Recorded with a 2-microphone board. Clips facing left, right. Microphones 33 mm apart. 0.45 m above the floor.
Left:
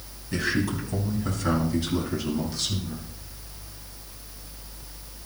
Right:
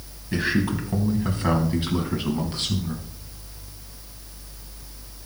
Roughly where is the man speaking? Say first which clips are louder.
Right 3 dB; right.